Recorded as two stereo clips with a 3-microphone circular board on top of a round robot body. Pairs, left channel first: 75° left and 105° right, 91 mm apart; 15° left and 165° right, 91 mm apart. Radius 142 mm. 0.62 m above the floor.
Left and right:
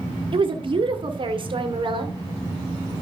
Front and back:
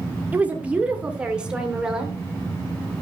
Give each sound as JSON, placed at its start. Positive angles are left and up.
{"t": 0.3, "sound": "a woman speaking", "azimuth_deg": -95, "distance_m": 2.5}